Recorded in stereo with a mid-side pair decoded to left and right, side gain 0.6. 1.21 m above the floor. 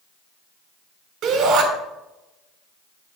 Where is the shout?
55° right, 5 m.